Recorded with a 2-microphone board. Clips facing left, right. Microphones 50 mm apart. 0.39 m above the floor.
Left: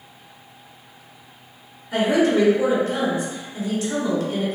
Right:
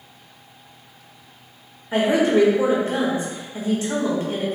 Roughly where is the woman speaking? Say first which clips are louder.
Right 1 dB; right.